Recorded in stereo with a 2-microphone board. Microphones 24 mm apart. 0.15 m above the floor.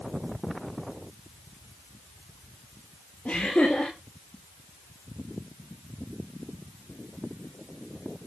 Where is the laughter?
70° left (ahead or behind), 3.5 m.